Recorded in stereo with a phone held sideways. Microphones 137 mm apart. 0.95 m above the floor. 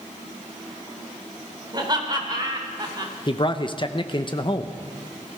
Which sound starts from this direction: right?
Laughter, at 1.7 s.